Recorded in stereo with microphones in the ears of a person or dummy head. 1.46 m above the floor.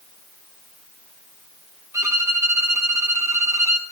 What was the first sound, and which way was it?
A violin, 15° right (ahead or behind).